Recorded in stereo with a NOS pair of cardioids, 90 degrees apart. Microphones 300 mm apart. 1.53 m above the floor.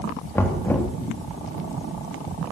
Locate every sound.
0.3 s knocking: 5° left, 2.5 m